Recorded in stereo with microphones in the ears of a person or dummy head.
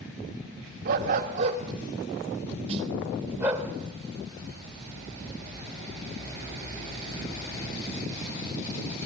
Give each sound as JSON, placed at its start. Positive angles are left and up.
{"t": 0.8, "sound": "a dog barking", "side_deg": -55, "distance_m": 1.5}
{"t": 2.7, "sound": "a snare drum", "side_deg": -40, "distance_m": 1.8}